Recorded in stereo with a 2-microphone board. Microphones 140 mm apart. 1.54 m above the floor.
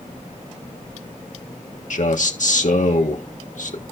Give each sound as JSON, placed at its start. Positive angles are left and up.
{"t": 1.9, "sound": "a man speaking", "side_deg": 65, "distance_m": 1.5}